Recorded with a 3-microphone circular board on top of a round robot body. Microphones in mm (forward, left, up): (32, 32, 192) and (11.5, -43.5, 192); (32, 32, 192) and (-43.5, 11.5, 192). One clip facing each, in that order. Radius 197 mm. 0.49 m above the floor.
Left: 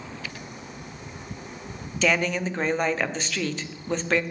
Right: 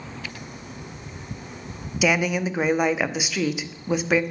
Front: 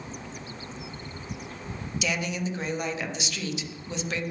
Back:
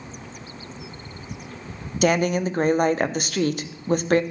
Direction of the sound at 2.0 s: 175° left.